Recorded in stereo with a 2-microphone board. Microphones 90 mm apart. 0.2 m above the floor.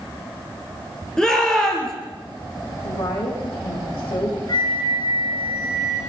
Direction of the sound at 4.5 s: 45° left (ahead or behind).